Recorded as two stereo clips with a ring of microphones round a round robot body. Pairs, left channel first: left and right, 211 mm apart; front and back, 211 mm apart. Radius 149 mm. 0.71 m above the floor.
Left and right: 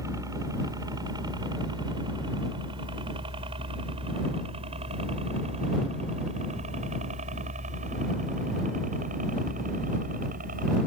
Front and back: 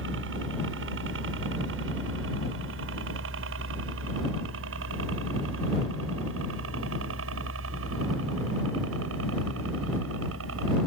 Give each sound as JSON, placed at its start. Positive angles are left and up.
{"t": 0.0, "sound": "a helicopter", "azimuth_deg": -165}